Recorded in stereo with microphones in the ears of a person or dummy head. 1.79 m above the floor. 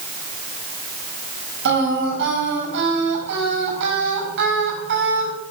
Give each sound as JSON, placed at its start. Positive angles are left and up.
{"t": 1.6, "sound": "singing", "side_deg": -60, "distance_m": 7.0}